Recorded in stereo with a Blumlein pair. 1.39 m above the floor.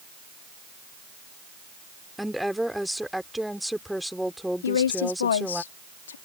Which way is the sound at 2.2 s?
Straight ahead.